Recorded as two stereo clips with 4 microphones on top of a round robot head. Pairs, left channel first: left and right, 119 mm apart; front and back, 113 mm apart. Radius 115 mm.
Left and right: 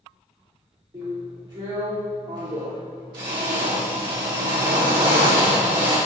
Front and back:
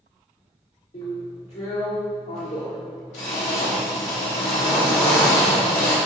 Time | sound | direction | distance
0.9 | a drill | 35° right | 3 m